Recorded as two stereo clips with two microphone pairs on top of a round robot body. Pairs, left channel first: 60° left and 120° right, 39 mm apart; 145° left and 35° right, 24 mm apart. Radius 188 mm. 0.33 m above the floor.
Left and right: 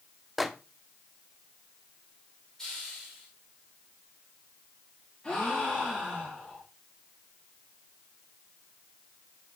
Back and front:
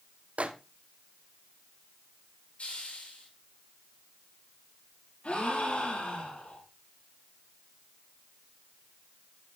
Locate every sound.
0.4 s a microwave: 35° right, 0.9 m
2.6 s a hiss: 140° left, 5.5 m
5.2 s a gasp: 125° left, 6.5 m